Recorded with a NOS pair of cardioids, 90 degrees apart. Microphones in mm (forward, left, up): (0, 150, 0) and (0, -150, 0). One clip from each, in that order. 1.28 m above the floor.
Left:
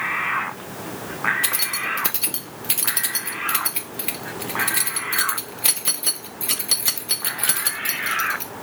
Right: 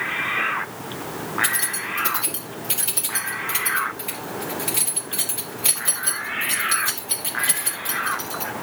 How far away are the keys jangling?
About 1.8 m.